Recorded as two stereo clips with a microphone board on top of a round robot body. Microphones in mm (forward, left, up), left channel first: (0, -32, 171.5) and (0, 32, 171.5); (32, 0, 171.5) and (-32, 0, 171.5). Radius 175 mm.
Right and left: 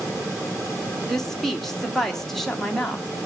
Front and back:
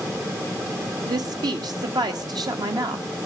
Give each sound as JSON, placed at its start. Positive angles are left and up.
{"t": 1.1, "sound": "a woman speaking", "azimuth_deg": -175, "distance_m": 1.8}